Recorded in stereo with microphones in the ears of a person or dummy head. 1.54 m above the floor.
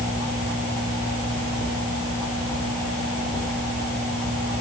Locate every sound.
Only background noise.